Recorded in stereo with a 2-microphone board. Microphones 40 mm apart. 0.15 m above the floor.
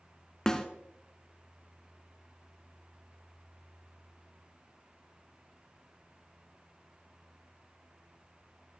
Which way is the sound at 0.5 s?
15° left (ahead or behind).